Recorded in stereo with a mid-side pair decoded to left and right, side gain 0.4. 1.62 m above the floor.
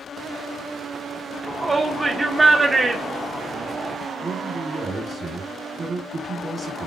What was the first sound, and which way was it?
A shout, 25° right.